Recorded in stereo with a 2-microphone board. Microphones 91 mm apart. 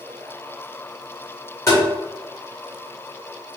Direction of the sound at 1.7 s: 35° left (ahead or behind).